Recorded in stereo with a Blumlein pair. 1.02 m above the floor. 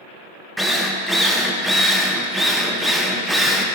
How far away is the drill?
About 0.5 m.